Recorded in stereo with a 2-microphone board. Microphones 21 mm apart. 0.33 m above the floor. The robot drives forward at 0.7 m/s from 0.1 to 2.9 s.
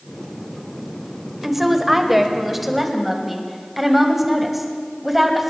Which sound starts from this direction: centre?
A woman speaking, at 1.4 s.